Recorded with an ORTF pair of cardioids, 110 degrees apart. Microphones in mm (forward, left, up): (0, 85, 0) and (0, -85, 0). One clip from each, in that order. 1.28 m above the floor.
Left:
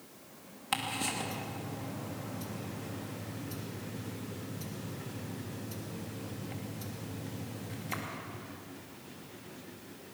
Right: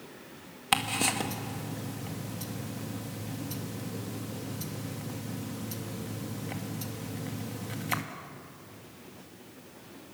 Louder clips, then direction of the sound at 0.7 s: Right 6 dB; 45° right.